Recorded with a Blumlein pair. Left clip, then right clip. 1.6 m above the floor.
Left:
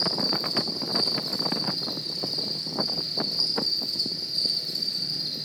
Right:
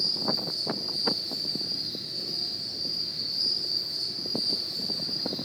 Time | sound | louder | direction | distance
0.0 | an insect | left 2 dB | 55° left | 2.5 m